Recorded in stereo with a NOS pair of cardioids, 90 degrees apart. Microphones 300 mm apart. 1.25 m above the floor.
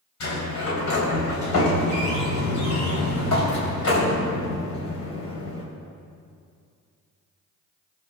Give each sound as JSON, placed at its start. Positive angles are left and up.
{"t": 0.2, "sound": "a sliding door", "azimuth_deg": 65, "distance_m": 3.0}